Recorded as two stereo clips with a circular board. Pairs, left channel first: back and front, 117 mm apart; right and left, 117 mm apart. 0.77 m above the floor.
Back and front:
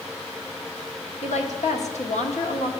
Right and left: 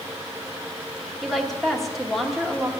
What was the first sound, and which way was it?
A woman speaking, straight behind.